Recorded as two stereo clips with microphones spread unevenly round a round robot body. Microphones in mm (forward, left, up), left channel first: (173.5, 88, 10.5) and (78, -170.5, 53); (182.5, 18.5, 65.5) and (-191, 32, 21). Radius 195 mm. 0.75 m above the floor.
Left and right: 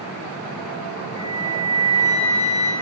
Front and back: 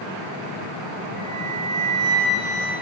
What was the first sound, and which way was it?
A flute, 80° right.